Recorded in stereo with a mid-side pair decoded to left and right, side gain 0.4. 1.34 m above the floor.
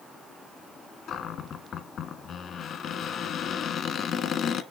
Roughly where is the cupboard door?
Left.